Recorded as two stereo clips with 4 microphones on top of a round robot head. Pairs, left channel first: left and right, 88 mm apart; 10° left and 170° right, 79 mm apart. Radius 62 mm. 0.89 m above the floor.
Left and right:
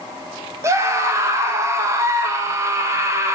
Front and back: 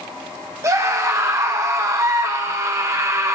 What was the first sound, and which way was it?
A scream, 135° right.